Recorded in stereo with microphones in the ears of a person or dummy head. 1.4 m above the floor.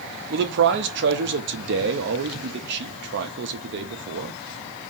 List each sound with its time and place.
0.3 s a man speaking: 65° right (ahead or behind), 0.8 m